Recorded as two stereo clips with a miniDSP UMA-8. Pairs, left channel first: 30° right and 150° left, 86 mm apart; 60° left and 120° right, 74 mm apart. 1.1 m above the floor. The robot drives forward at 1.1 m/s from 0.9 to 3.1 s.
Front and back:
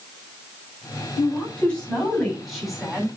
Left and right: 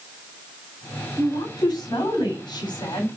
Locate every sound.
1.2 s a woman speaking: 45° left, 5.5 m; by 3.1 s 65° left, 4 m